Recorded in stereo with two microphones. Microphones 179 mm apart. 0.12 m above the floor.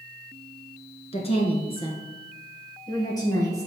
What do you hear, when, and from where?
1.1 s a woman speaking: 35° left (ahead or behind), 1.4 m; by 3.7 s 20° left (ahead or behind), 2.5 m